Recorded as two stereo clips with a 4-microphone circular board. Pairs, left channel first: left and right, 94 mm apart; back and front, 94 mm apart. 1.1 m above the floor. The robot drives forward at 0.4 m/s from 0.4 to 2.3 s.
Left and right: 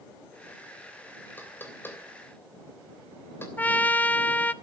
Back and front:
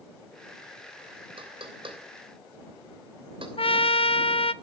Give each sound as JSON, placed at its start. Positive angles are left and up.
{"t": 1.4, "sound": "knocking", "azimuth_deg": 20, "distance_m": 3.0}
{"t": 3.6, "sound": "a trumpet", "azimuth_deg": 165, "distance_m": 0.7}